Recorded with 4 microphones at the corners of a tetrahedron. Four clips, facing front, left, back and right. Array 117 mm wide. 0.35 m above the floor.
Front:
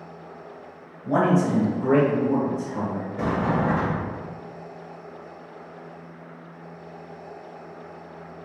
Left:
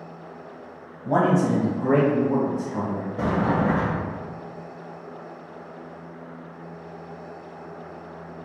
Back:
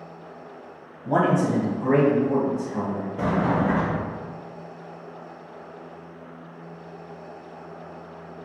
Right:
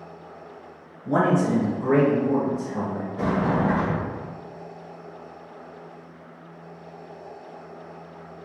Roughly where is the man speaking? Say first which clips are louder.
Left 1 dB, even; left.